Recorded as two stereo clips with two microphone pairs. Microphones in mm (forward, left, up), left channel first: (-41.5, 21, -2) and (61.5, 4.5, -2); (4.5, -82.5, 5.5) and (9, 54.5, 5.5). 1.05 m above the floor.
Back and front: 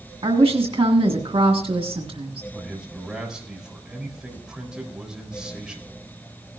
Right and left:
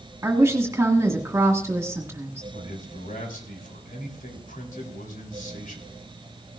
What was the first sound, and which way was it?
A woman speaking, 15° left.